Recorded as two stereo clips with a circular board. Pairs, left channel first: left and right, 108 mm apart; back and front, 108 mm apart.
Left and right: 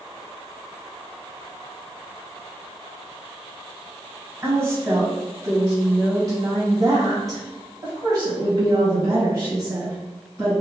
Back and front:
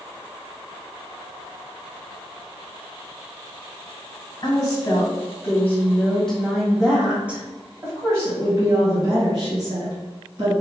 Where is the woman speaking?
145° right, 1.9 m; by 10.5 s 30° right, 2.5 m.